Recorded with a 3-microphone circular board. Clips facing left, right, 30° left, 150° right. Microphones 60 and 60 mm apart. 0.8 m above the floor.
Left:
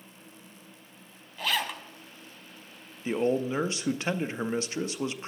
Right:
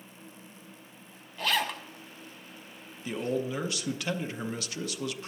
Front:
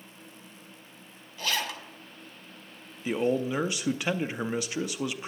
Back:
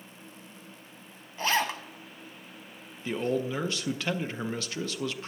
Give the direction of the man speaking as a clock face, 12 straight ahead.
9 o'clock.